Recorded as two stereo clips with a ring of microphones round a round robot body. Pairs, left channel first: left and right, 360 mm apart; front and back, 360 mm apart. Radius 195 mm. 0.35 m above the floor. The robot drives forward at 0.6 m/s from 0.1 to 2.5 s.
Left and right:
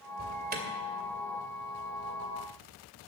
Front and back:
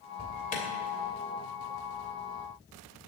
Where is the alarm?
45° right, 2.5 m; by 0.6 s 55° right, 2.5 m.